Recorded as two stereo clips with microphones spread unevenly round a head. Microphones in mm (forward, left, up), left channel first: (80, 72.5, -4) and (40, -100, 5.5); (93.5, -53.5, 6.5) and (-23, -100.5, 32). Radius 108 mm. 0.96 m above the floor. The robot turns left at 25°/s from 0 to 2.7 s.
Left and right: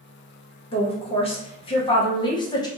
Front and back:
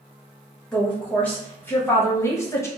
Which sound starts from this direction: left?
A woman speaking, at 0.7 s.